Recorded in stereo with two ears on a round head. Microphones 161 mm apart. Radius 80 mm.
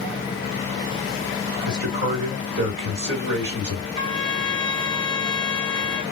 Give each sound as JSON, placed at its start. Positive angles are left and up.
{"t": 1.6, "sound": "a man speaking", "side_deg": -60, "distance_m": 3.0}
{"t": 4.0, "sound": "a trumpet", "side_deg": -35, "distance_m": 2.0}